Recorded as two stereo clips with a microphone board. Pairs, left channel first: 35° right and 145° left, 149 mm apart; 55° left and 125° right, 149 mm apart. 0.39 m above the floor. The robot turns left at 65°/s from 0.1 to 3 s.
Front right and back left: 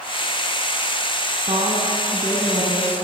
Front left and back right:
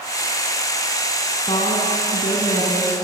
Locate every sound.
1.5 s a woman speaking: 105° left, 3 m; by 3.0 s 5° left, 3 m